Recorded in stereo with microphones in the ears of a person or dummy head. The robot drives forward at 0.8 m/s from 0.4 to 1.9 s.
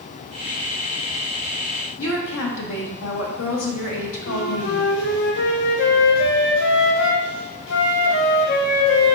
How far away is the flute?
About 0.5 m.